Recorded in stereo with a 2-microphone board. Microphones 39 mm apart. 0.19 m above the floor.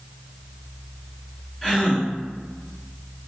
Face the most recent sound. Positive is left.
turn(degrees=5)  # may be behind; listen again after turning